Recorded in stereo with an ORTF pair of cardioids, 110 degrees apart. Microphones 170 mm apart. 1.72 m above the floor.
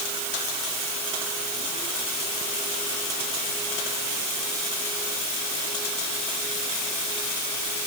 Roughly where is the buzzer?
I don't hear a buzzer.